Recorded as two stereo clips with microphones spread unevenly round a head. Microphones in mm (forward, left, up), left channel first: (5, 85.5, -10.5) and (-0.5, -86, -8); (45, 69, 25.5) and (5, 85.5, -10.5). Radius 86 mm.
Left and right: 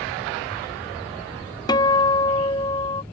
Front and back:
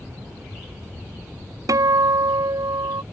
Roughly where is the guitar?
Behind left.